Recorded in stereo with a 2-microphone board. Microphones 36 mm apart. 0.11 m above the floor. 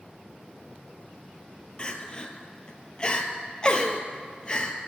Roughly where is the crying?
Left.